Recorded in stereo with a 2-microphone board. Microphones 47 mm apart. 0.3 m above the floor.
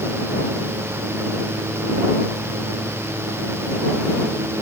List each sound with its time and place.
Only background noise.